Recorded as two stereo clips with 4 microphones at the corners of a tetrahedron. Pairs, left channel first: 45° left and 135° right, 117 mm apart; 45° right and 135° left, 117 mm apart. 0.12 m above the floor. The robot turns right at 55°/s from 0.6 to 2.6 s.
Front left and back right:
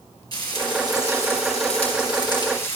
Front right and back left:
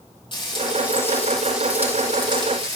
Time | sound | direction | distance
0.3 | frying | 5° right | 3.5 m